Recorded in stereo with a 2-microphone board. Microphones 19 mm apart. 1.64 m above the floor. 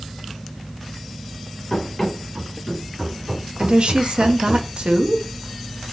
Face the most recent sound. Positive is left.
turn(degrees=-65)  # may be behind; listen again after turning